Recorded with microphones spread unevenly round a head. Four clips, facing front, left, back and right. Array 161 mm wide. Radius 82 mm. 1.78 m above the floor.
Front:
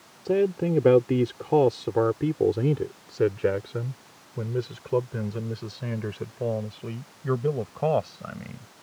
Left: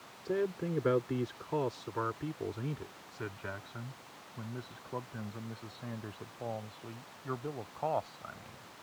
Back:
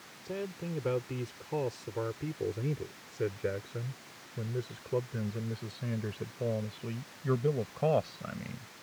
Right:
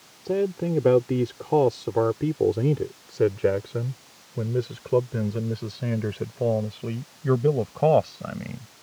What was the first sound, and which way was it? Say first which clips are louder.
A man speaking: right 9 dB, front 15 dB; 25° right.